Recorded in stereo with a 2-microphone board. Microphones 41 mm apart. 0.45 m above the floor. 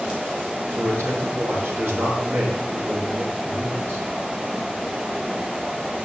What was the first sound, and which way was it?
A man speaking, 75° right (ahead or behind).